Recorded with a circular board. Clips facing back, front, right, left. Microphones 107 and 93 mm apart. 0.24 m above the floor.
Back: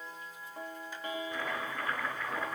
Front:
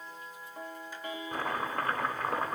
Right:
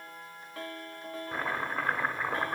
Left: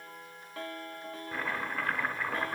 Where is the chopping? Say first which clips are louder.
Front 4 dB, right 2 dB; 25° right, 2 m.